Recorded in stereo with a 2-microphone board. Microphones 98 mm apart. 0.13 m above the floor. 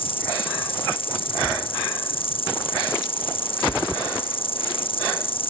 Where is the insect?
65° left (ahead or behind).